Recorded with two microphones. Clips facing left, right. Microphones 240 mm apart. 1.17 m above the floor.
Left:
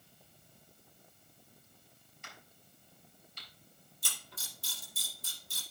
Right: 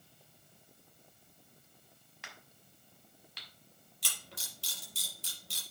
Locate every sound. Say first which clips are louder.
2.2 s a crack: even; 85° right, 3.5 m
4.0 s a camera shutter: right 2 dB; 75° right (ahead or behind), 5.5 m